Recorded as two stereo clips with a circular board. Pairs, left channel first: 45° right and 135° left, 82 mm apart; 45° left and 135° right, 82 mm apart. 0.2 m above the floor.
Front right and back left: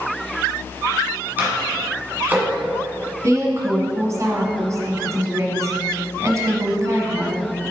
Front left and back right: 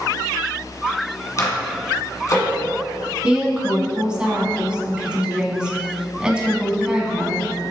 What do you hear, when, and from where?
1.4 s a microwave: 75° left, 1.4 m
3.2 s a woman speaking: 150° left, 1.2 m